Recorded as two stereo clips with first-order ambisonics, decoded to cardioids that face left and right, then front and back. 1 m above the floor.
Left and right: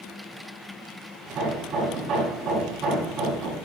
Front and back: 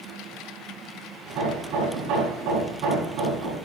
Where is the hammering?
150° right, 5 m.